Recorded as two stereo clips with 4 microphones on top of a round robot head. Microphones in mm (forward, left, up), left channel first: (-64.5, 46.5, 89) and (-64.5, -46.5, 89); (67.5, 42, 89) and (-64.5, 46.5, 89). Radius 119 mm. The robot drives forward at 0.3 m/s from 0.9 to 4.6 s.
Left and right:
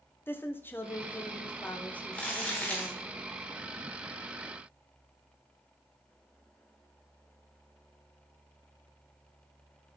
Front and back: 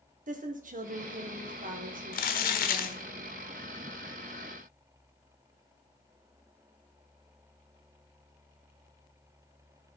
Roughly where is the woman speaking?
Behind.